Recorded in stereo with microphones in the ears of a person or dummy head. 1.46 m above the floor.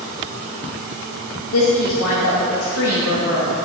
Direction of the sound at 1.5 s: 85° left.